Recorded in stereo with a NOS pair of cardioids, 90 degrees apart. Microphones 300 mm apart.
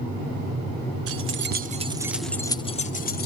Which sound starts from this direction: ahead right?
Keys jangling, at 1.1 s.